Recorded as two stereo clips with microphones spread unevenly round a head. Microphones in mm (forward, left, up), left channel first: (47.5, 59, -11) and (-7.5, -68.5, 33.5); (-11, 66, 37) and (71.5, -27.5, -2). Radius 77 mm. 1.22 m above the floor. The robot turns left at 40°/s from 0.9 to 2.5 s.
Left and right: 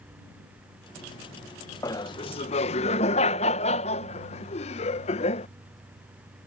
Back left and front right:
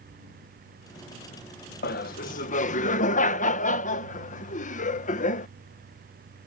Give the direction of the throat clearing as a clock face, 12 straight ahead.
I don't hear throat clearing.